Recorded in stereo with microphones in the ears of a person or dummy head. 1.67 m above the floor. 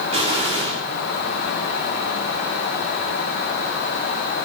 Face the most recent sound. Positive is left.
turn(degrees=-25)  # may be behind; listen again after turning